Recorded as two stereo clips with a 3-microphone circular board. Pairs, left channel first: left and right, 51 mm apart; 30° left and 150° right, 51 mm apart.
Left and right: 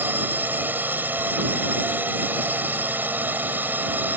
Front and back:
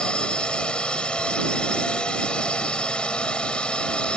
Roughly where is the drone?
Ahead right.